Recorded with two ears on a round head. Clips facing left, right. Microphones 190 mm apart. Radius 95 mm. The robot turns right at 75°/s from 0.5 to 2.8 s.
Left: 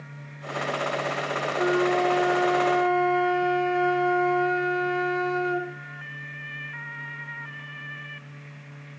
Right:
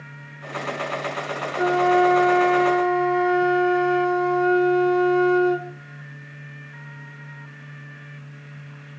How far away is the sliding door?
No sliding door in this recording.